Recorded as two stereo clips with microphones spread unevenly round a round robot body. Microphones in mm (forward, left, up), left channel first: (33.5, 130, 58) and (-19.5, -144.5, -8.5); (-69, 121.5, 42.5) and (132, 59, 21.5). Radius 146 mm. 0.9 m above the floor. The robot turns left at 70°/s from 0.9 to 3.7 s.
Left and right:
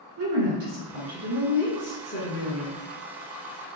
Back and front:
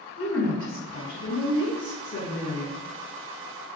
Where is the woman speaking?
145° right, 1.8 m; by 2.8 s 80° left, 1.8 m.